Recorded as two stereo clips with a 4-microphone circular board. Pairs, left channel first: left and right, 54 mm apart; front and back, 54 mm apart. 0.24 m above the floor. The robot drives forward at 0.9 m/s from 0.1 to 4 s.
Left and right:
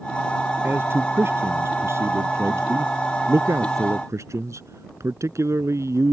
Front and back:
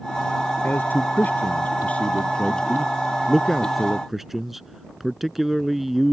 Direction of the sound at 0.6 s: 50° right.